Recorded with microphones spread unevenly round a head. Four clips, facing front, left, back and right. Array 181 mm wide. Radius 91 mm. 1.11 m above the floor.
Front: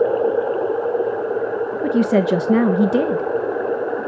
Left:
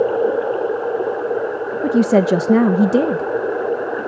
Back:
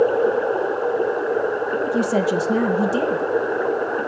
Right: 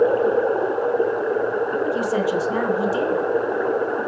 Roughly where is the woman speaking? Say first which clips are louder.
Left 7 dB, front 5 dB; left.